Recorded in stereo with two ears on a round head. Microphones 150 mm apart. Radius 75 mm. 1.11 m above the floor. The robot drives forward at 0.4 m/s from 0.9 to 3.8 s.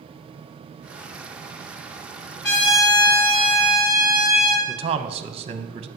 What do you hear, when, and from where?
2.4 s a trumpet: 70° left (ahead or behind), 2.5 m; by 4.6 s 80° left, 2.5 m
4.7 s a man speaking: 35° right (ahead or behind), 0.6 m